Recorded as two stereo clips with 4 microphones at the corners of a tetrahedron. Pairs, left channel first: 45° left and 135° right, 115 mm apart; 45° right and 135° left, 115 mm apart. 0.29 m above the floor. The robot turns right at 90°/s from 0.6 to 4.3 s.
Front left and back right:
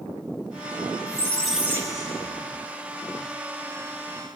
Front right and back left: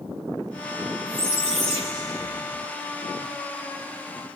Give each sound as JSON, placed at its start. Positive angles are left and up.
{"t": 1.1, "sound": "a squeak", "azimuth_deg": 95, "distance_m": 1.3}